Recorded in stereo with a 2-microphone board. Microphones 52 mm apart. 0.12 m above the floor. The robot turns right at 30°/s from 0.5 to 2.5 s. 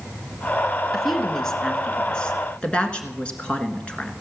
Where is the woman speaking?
Centre (ahead or behind), 1.4 m; by 4.1 s 20° left (ahead or behind), 1.4 m.